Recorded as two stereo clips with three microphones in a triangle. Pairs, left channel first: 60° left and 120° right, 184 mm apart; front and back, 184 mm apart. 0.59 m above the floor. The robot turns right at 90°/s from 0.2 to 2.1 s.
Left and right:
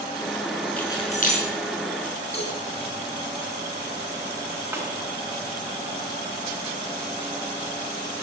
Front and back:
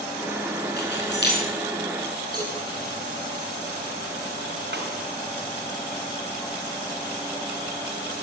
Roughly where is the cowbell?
Behind left.